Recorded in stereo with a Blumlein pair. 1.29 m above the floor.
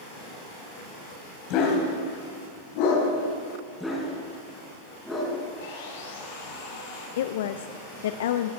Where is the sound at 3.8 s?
5° left, 4.5 m.